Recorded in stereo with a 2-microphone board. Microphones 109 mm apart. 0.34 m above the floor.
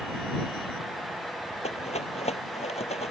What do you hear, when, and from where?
1.6 s a rattle: 80° left